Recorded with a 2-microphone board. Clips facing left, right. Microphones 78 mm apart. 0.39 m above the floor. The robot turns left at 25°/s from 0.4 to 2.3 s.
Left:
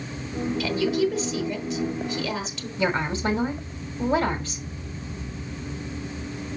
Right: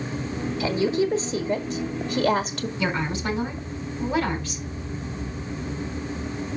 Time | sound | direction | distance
0.6 | a woman speaking | 40° right | 1.1 m
2.8 | a woman speaking | 35° left (ahead or behind) | 2.5 m